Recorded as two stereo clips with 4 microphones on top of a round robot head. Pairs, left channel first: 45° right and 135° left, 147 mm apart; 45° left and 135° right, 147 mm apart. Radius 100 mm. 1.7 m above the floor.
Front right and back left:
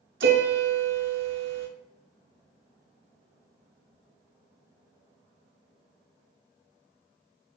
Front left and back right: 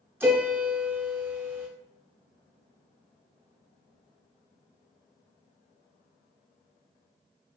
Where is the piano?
150° left, 0.5 m.